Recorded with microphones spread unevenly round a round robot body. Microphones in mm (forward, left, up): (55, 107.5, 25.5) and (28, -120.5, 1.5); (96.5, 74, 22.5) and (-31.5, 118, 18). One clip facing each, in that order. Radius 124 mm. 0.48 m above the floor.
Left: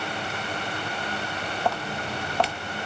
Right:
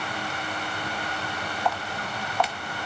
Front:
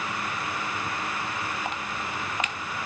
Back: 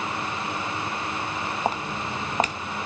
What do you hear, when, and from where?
1.6 s footsteps: 125° left, 0.6 m